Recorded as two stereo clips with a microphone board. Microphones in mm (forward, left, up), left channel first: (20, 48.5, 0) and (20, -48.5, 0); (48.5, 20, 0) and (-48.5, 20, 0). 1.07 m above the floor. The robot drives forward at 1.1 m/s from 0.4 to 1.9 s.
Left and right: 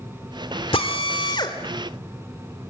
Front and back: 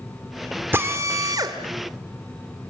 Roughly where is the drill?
Left.